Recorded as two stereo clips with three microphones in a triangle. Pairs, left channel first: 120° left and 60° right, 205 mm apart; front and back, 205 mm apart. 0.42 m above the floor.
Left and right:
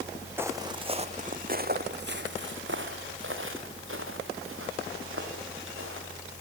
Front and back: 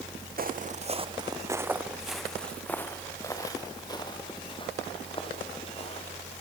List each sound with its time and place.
0.4 s footsteps: 140° right, 1.6 m; by 6.3 s 60° right, 5.5 m